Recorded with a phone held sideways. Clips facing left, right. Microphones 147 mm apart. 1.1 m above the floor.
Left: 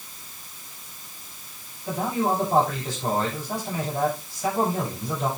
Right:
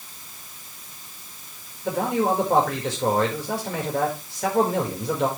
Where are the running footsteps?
No running footsteps in this recording.